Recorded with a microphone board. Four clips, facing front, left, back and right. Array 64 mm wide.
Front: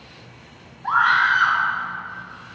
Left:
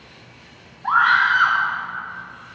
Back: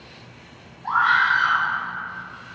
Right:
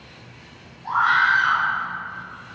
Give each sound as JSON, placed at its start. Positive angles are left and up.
{"t": 0.8, "sound": "a scream", "azimuth_deg": 65, "distance_m": 3.0}